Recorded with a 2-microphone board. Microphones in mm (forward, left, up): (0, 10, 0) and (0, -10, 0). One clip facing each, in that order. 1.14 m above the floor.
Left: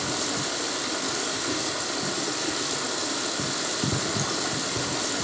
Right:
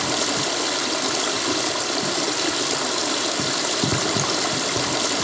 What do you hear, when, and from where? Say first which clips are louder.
0.0 s running water: right 6 dB; 45° right (ahead or behind), 2.5 m